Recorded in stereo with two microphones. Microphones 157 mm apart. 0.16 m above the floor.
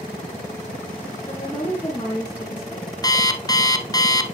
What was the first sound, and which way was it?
A woman speaking, 20° left (ahead or behind).